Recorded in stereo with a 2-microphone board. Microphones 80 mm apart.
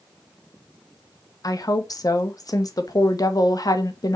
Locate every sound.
1.4 s a woman speaking: 50° left (ahead or behind), 1.1 m